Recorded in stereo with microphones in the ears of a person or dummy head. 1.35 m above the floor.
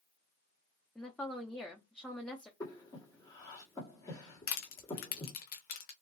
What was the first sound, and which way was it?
A woman speaking, 10° left (ahead or behind).